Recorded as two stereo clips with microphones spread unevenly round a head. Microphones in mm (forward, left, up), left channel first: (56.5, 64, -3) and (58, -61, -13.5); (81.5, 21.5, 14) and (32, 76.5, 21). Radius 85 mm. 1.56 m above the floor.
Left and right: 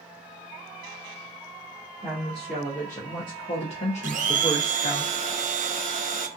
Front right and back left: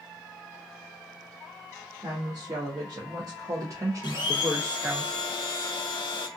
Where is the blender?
70° right, 0.5 m.